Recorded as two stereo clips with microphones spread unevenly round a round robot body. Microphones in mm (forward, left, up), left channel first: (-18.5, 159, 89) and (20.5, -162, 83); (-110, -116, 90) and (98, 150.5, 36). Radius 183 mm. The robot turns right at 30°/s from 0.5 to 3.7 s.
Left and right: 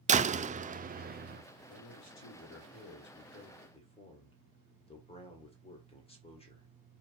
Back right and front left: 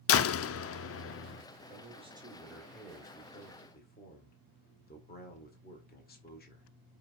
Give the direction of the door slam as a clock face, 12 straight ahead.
4 o'clock.